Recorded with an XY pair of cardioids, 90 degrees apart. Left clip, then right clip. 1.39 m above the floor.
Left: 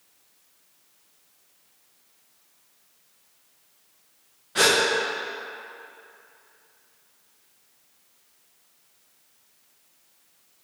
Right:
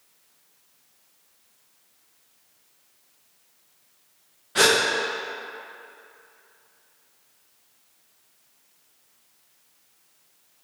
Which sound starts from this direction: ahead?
A gasp, at 4.5 s.